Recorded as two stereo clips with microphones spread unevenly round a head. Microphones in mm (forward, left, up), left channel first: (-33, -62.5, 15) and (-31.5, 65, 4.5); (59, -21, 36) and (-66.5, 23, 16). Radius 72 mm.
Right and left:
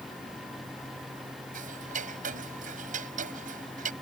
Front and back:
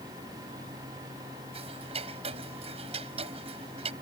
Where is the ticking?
110° left.